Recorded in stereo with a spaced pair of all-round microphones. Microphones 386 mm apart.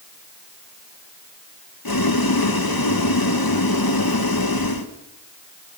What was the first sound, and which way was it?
Boiling, 65° left (ahead or behind).